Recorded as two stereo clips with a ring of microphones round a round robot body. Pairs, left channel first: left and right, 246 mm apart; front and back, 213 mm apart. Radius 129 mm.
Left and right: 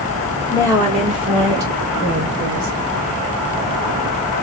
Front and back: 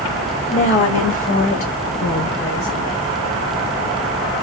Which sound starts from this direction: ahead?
A woman speaking, at 0.5 s.